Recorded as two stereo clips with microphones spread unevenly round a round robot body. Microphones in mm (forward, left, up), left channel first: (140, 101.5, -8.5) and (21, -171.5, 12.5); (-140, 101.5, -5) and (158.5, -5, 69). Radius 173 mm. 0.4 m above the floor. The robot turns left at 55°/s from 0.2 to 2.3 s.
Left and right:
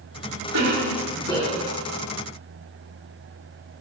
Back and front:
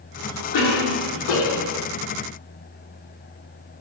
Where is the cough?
165° right, 3.5 m; by 1.8 s 120° left, 3.5 m.